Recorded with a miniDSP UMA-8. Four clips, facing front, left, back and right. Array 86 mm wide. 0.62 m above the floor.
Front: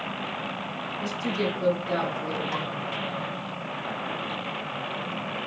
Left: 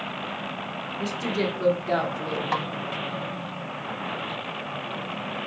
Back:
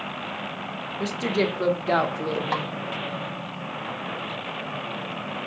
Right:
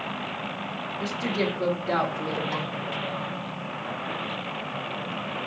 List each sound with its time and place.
1.0 s a woman speaking: 175° right, 0.9 m
2.5 s a snare drum: 130° left, 0.6 m